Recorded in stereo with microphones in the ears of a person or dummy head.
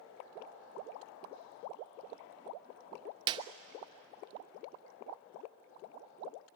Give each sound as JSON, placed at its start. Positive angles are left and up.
{"t": 3.3, "sound": "a clap", "side_deg": -30, "distance_m": 0.6}